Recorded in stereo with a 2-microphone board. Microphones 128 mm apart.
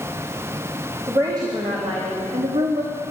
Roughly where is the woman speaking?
Right.